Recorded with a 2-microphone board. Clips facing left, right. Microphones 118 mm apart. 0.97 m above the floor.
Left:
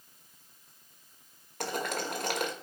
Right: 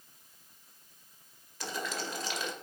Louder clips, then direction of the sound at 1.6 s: Left 4 dB; 55° left (ahead or behind).